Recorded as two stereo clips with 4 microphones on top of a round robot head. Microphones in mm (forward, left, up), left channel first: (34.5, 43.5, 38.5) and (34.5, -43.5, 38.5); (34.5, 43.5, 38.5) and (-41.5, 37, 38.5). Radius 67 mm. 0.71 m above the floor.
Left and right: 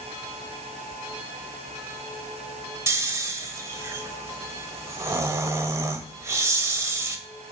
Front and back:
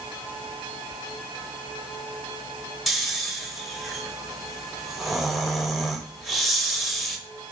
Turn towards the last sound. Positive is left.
turn(degrees=-85)